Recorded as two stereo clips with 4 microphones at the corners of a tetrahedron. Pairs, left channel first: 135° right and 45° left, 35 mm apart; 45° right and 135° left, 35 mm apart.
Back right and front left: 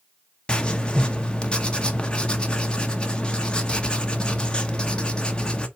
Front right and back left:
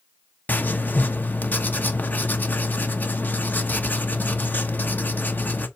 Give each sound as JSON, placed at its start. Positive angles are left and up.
{"t": 0.5, "sound": "writing", "azimuth_deg": -70, "distance_m": 1.0}